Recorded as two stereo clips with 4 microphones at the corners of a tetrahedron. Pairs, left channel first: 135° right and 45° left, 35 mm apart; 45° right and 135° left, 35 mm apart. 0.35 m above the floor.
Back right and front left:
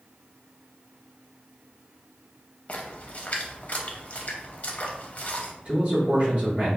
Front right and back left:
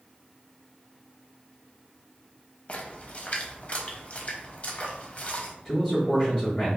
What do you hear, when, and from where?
2.7 s a splash: 90° right, 0.5 m
5.7 s a man speaking: 20° left, 1.3 m